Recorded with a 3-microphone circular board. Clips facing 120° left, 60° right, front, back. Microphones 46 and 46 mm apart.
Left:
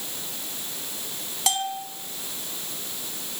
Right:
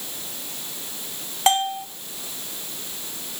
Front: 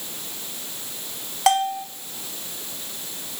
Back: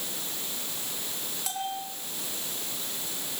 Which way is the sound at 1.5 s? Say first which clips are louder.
Right 7 dB, front 15 dB; 5° right.